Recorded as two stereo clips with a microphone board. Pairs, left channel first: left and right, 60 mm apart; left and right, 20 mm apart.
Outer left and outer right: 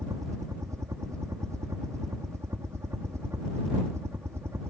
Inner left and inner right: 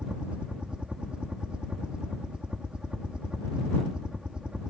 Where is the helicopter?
60° right (ahead or behind); by 4.7 s 45° right (ahead or behind).